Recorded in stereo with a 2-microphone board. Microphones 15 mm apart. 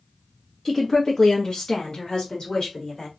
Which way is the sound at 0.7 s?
10° left (ahead or behind).